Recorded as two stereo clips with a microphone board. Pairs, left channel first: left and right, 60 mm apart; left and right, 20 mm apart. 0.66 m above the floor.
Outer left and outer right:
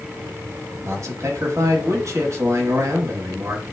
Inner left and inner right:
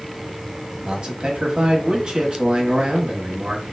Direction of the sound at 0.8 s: 50° right (ahead or behind).